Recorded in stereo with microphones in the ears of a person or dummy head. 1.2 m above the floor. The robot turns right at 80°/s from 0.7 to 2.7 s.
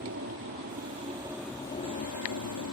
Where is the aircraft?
60° right; by 2.7 s 100° left.